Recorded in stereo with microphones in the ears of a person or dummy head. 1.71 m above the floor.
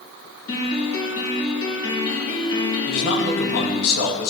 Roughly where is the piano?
Left.